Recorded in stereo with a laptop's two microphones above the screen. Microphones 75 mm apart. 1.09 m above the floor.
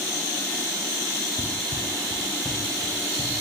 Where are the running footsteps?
55° left (ahead or behind), 1.7 m; by 3.3 s 45° left (ahead or behind), 3.5 m.